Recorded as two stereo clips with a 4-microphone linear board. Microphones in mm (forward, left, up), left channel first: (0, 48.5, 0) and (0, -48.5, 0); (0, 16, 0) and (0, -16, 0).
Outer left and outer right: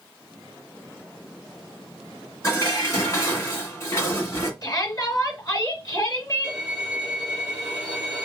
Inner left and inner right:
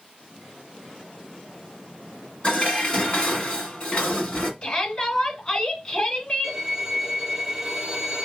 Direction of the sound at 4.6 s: 35° left (ahead or behind).